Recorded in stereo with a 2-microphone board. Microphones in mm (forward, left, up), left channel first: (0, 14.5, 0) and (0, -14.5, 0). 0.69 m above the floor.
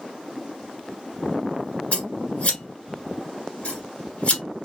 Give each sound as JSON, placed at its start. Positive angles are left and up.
{"t": 1.9, "sound": "scissors", "side_deg": 40, "distance_m": 1.5}